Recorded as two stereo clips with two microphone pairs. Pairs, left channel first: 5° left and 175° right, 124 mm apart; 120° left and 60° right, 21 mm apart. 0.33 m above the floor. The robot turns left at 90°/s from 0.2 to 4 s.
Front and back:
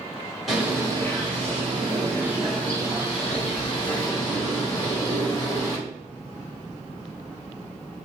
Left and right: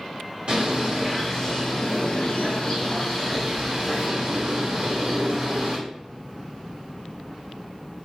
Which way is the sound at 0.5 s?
80° right.